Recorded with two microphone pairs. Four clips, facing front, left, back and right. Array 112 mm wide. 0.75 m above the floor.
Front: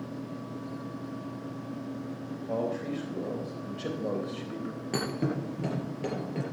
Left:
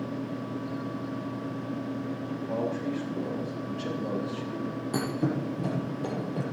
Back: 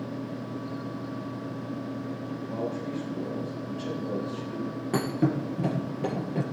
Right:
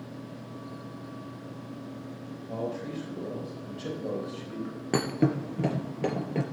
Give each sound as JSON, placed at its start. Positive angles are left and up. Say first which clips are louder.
{"t": 2.5, "sound": "a man speaking", "louder": "left 3 dB, front 2 dB", "azimuth_deg": 15, "distance_m": 4.0}
{"t": 4.9, "sound": "a thud", "louder": "right 4 dB, back 5 dB", "azimuth_deg": -95, "distance_m": 3.0}